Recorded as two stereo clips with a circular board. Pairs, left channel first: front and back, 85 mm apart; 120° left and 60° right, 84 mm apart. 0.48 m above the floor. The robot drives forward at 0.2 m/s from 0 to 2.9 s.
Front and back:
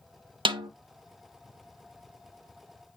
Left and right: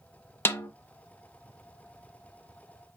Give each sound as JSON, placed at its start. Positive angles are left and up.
{"t": 0.5, "sound": "a snare drum", "azimuth_deg": -175, "distance_m": 0.6}